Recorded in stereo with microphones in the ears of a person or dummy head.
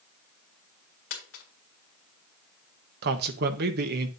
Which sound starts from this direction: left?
A dropped coin, at 1.1 s.